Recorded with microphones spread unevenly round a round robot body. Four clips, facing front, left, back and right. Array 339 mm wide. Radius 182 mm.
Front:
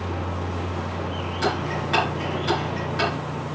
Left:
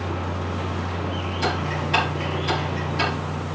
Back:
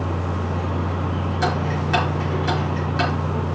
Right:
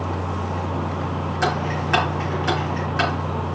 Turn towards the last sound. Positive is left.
turn(degrees=-95)